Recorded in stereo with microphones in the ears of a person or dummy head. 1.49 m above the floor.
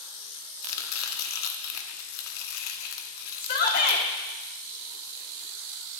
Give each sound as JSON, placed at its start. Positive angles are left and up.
{"t": 0.6, "sound": "chopping", "side_deg": 80, "distance_m": 0.6}
{"t": 3.4, "sound": "a shout", "side_deg": 55, "distance_m": 1.1}